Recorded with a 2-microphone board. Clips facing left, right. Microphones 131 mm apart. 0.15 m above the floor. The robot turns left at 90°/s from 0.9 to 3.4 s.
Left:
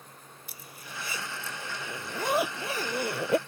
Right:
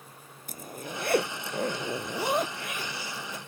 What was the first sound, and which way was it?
A zipper, 50° right.